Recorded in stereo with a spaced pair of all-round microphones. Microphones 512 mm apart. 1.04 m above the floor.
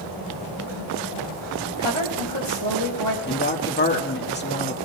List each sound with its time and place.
1.8 s a woman speaking: 65° right (ahead or behind), 5.5 m
3.3 s a woman speaking: 20° left (ahead or behind), 1.8 m